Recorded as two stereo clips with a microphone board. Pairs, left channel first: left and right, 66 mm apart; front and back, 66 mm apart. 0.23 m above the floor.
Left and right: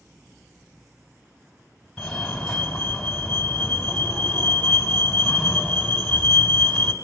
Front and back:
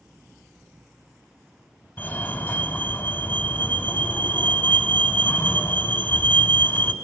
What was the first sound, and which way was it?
A fire alarm, 10° left.